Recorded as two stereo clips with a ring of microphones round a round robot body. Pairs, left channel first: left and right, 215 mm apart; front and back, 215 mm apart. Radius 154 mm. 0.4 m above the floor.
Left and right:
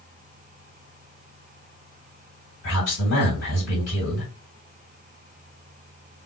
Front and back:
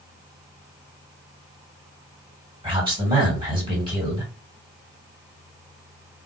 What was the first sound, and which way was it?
A man speaking, 115° left.